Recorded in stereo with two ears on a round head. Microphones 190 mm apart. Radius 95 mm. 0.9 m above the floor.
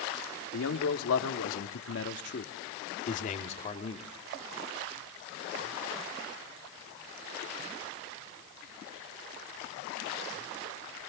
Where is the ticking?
I don't hear ticking.